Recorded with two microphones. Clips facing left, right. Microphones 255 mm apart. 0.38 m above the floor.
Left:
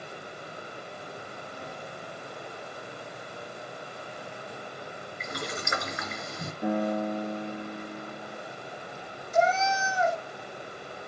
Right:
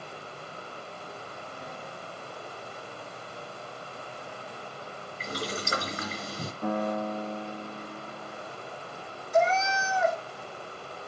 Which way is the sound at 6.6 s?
10° left (ahead or behind).